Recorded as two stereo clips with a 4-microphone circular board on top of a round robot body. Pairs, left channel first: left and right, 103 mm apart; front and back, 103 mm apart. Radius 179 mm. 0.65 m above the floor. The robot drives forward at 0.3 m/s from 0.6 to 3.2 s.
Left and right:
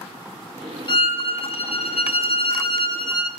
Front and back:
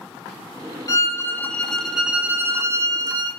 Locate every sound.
0.9 s a violin: 55° left, 0.6 m; by 3.3 s 130° left, 0.7 m